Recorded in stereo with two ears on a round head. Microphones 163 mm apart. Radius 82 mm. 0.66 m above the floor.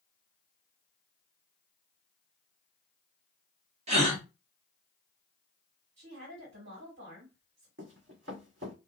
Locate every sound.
3.9 s a gasp: 35° right (ahead or behind), 1.2 m
6.0 s a woman speaking: 65° right (ahead or behind), 1.8 m
7.8 s running footsteps: 70° right (ahead or behind), 1.6 m